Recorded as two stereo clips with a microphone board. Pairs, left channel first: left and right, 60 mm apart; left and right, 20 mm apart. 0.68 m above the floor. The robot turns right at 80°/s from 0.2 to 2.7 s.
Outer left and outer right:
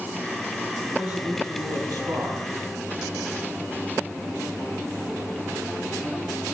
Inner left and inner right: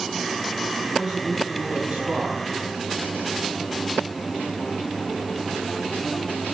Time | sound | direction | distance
0.8 | a man speaking | 155° right | 5 m